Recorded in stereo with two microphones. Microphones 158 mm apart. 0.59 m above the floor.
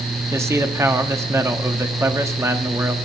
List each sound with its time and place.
0.3 s a man speaking: 15° right (ahead or behind), 0.8 m